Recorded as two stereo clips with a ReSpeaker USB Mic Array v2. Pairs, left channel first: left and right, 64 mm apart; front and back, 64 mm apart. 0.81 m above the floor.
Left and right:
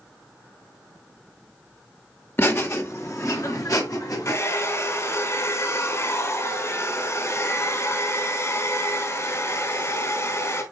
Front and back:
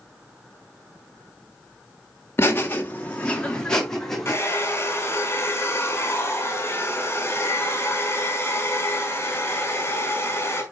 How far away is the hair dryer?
About 3 m.